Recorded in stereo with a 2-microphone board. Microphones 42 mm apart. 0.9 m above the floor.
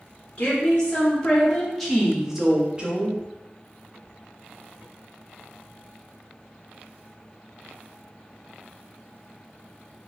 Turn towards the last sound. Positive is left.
turn(degrees=-35)  # may be behind; listen again after turning